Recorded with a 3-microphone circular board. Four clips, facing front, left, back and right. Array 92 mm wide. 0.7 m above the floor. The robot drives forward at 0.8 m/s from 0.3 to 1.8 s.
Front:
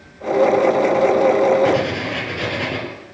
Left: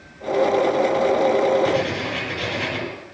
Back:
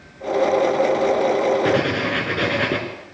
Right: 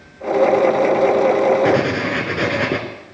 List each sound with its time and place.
1.6 s writing: 120° right, 2 m; by 2.8 s 125° right, 2 m